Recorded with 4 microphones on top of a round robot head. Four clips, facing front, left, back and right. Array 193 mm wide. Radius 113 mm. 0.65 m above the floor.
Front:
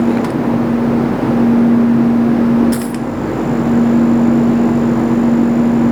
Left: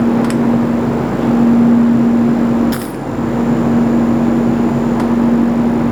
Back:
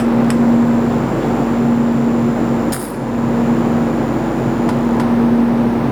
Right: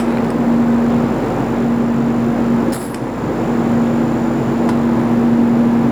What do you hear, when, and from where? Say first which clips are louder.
2.7 s a dropped coin: left 1 dB, front 5 dB; 95° left, 4 m